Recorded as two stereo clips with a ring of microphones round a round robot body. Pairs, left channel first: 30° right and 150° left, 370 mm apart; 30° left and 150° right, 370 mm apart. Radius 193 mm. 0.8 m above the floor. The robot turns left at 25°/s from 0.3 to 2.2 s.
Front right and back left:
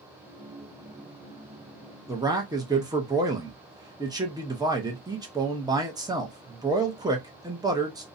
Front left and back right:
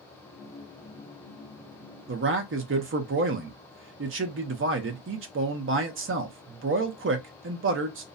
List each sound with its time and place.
2.1 s a man speaking: 135° right, 0.6 m; by 8.0 s 140° right, 0.6 m